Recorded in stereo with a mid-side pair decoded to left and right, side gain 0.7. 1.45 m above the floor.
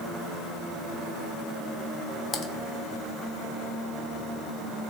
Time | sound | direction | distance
2.3 | typing on a keyboard | 30° left | 1.9 m